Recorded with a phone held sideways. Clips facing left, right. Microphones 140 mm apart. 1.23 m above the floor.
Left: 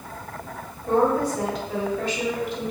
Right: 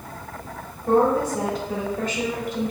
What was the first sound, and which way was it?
A woman speaking, 45° right (ahead or behind).